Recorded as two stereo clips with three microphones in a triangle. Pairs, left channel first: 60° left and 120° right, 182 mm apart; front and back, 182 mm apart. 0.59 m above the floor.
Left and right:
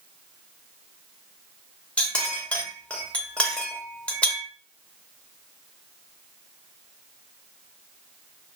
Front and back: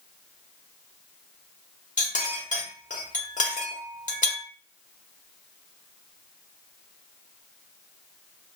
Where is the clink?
20° right, 0.8 m.